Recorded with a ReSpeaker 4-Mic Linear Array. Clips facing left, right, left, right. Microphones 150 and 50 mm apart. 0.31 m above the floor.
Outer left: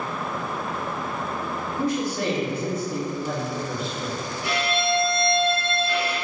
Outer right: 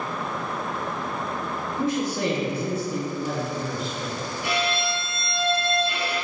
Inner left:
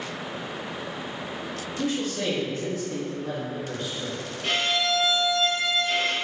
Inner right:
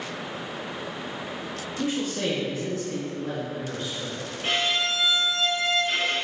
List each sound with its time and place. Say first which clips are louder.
1.8 s a man speaking: even, even; 25° right (ahead or behind), 1.1 m; by 4.3 s 10° left (ahead or behind), 3 m
4.4 s a violin: outer left 2 dB, even; 25° right (ahead or behind), 1.5 m